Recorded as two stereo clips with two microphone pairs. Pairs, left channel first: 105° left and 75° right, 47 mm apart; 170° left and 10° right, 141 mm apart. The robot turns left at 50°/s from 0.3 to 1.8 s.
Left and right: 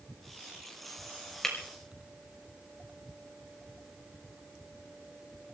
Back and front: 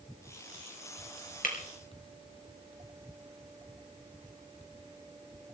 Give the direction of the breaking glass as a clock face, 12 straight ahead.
6 o'clock.